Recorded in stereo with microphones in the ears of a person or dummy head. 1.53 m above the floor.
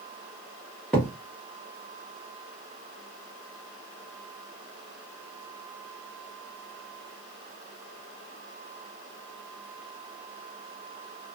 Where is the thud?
5° left (ahead or behind), 1.0 m.